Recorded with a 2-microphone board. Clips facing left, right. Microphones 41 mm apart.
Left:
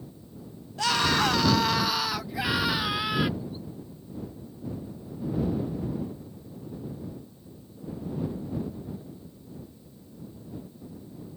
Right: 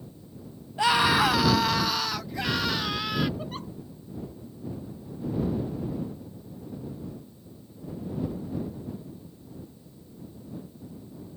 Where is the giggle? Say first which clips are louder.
Right 2 dB; 70° right (ahead or behind).